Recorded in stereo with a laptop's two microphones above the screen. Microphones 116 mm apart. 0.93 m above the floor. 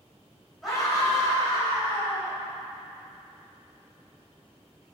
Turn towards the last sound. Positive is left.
turn(degrees=10)  # may be behind; listen again after turning